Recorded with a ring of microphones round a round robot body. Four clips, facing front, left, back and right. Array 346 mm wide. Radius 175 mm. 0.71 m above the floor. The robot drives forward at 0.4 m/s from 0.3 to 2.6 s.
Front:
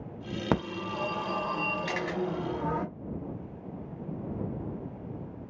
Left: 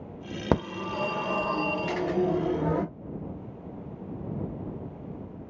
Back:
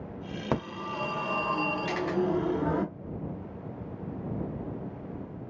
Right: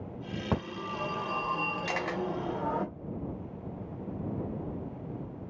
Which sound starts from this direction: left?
A phone ringing, at 0.5 s.